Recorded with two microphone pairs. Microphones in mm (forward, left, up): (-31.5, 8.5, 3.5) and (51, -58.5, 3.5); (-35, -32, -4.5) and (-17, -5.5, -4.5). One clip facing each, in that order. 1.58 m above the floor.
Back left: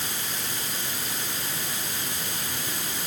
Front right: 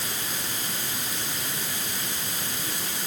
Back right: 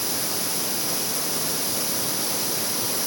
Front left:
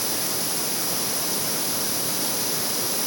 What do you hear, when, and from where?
Only background noise.